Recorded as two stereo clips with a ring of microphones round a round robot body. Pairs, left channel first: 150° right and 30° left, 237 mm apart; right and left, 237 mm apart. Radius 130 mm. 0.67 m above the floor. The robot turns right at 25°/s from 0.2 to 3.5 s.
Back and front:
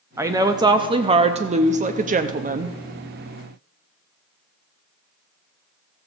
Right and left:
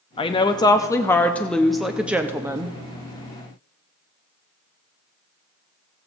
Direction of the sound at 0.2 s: 40° right.